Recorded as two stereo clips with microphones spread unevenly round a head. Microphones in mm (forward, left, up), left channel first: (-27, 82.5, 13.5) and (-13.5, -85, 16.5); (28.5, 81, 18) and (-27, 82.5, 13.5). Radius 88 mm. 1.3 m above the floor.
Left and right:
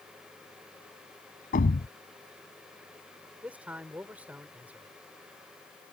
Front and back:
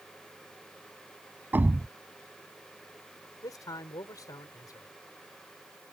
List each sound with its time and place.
1.5 s a thud: 125° left
3.4 s a man speaking: 5° right